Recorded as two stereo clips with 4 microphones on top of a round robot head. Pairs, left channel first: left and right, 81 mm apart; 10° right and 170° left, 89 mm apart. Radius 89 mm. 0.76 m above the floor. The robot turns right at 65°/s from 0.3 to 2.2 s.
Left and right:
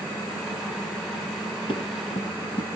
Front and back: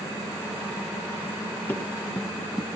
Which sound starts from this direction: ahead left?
Running footsteps, at 1.7 s.